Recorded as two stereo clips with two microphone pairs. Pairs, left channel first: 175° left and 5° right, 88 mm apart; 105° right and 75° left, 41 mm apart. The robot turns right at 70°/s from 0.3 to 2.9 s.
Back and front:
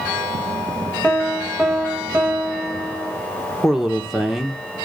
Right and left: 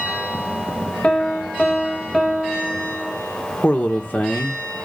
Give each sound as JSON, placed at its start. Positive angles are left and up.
{"t": 1.0, "sound": "a piano", "azimuth_deg": -125, "distance_m": 1.3}
{"t": 3.6, "sound": "a man speaking", "azimuth_deg": -90, "distance_m": 1.4}